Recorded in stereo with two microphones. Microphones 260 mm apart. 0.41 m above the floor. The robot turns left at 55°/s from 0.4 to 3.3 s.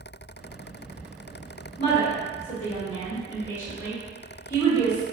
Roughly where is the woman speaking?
Left.